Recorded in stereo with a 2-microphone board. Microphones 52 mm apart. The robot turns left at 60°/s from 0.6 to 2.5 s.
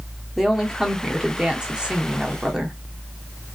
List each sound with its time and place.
0.4 s a woman speaking: 5° right (ahead or behind), 0.7 m; by 2.8 s 15° right (ahead or behind), 0.7 m